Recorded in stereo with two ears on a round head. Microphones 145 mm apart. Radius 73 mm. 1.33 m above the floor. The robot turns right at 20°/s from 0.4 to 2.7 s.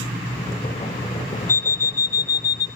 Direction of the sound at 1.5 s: 15° left (ahead or behind).